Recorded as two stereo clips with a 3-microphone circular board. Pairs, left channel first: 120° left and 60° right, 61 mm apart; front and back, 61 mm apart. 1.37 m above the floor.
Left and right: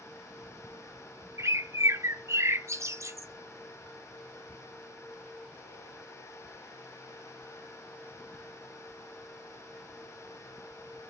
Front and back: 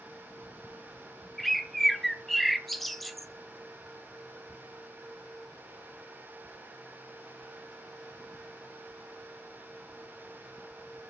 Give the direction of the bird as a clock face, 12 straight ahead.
3 o'clock.